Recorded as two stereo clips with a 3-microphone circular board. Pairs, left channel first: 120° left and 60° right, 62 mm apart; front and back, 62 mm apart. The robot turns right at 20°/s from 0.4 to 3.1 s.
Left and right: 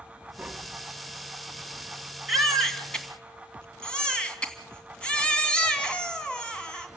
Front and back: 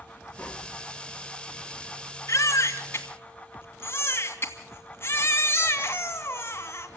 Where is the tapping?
20° right, 1.3 m; by 0.8 s 10° right, 1.3 m.